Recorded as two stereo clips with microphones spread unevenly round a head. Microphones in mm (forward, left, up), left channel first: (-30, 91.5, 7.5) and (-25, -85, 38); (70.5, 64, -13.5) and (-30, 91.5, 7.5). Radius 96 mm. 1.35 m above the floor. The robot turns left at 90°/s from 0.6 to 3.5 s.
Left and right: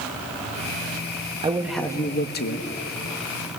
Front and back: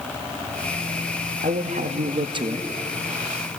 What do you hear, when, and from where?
1.4 s a man speaking: 150° right, 1.5 m; by 2.7 s 95° left, 1.5 m